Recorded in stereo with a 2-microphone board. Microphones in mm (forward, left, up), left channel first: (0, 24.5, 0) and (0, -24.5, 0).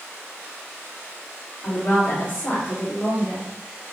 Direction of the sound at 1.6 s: 50° left (ahead or behind).